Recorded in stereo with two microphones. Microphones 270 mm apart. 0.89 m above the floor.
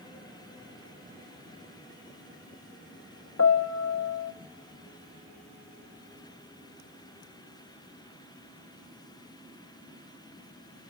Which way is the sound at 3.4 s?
65° left (ahead or behind).